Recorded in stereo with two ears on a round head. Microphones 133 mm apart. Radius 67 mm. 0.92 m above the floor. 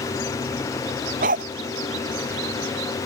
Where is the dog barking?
55° right (ahead or behind).